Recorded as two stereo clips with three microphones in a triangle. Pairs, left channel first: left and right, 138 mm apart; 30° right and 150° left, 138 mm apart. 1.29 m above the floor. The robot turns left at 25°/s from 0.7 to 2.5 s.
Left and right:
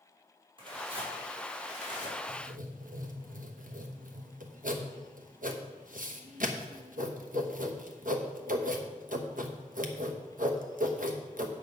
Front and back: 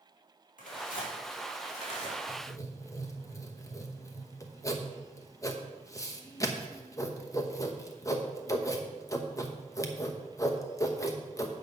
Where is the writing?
90° right, 1.0 m; by 11.6 s 95° right, 1.0 m.